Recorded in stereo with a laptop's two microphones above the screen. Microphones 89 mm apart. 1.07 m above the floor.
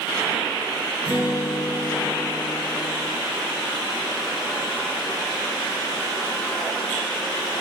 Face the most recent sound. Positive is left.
turn(degrees=80)